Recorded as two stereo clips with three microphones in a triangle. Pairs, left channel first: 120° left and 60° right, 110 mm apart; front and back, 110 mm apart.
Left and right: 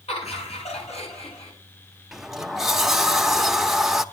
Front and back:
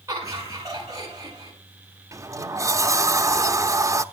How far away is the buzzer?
No buzzer in this recording.